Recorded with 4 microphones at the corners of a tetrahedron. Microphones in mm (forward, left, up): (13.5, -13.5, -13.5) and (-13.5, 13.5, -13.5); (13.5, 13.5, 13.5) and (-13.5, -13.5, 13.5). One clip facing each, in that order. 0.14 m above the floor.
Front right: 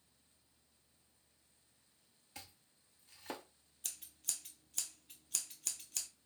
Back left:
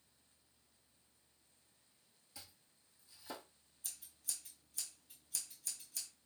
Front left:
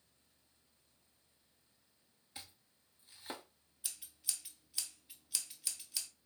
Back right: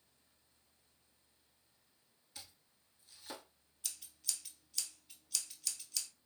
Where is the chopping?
20° right, 0.6 m.